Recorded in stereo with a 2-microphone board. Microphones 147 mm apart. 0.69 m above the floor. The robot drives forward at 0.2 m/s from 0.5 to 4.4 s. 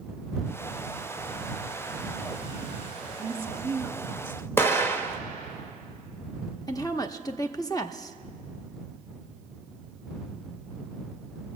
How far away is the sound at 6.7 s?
About 0.7 m.